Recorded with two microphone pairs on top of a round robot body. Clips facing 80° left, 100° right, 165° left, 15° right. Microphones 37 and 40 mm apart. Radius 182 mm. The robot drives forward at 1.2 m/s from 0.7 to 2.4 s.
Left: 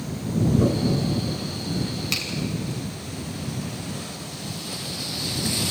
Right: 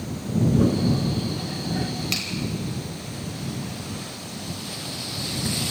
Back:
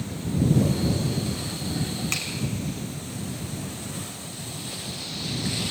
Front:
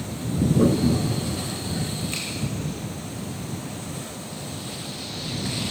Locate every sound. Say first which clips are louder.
0.6 s a toilet flushing: right 1 dB, front 5 dB; 20° right, 1.3 m; by 2.2 s 140° right, 0.8 m
2.1 s a finger snap: left 2 dB, back 2 dB; 175° left, 3.5 m